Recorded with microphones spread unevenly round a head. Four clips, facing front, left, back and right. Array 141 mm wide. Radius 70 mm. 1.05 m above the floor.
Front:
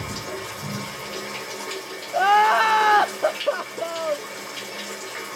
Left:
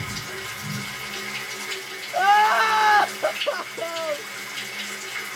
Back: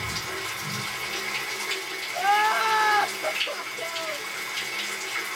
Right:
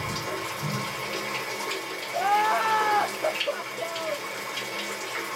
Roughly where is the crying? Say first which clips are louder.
Left 6 dB, front 6 dB; ahead left.